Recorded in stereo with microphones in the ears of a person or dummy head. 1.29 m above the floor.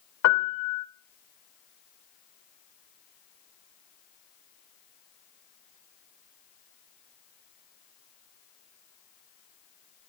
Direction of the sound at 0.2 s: 80° left.